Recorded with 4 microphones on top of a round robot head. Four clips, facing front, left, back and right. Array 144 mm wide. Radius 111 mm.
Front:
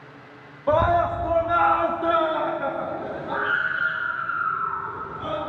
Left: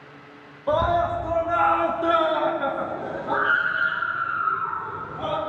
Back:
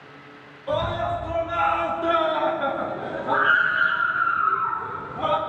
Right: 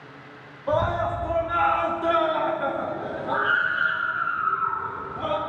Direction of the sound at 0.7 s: 10° left.